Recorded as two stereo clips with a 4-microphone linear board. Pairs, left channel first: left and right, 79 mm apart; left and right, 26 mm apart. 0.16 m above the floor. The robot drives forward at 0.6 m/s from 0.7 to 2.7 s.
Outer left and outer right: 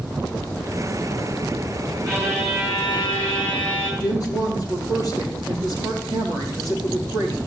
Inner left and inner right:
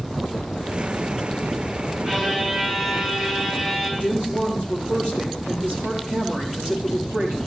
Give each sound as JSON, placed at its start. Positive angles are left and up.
{"t": 2.1, "sound": "a violin", "side_deg": -35, "distance_m": 3.0}
{"t": 4.0, "sound": "a woman speaking", "side_deg": -60, "distance_m": 4.0}